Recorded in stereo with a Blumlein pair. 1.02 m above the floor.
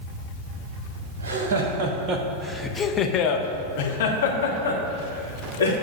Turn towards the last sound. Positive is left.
turn(degrees=70)